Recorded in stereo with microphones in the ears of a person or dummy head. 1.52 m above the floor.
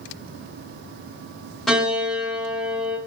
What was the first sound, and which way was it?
A piano, 5° left (ahead or behind).